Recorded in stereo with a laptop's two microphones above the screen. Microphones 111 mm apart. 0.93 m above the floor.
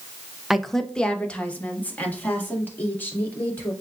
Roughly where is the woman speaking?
Centre.